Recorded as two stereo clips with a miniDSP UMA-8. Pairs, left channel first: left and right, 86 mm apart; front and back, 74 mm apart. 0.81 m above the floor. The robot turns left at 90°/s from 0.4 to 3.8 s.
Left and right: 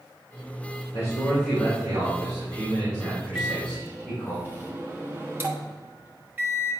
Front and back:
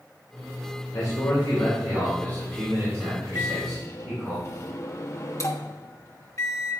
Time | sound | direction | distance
0.9 | a man speaking | 55° left | 2.5 m
3.4 | a microwave | 10° left | 1.1 m